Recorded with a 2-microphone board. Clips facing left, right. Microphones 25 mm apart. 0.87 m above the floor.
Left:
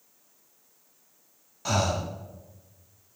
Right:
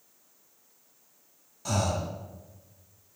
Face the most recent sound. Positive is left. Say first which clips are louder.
# left 3 dB
turn(degrees=30)  # may be behind; listen again after turning